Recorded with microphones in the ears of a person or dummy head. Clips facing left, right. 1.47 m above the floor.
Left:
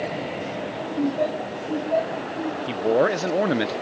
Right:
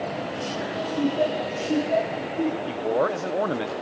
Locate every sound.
1.0 s laughter: centre (ahead or behind), 2 m; by 2.6 s 20° right (ahead or behind), 4 m
2.7 s a man speaking: 20° left (ahead or behind), 0.5 m